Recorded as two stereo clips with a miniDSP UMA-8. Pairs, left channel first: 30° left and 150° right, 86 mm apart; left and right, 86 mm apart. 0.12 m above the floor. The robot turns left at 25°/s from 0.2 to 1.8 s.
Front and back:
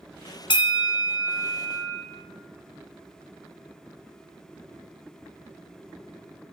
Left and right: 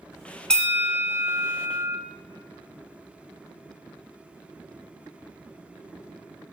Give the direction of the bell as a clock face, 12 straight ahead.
12 o'clock.